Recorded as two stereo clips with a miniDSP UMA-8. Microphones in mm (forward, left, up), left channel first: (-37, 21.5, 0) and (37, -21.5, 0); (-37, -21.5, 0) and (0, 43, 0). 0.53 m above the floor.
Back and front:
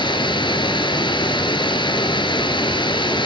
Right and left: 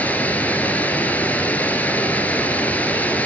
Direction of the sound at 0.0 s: 170° left.